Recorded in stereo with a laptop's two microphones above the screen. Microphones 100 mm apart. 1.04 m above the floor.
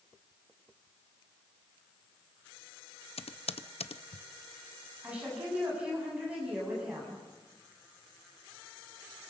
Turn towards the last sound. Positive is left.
turn(degrees=-10)  # may be behind; listen again after turning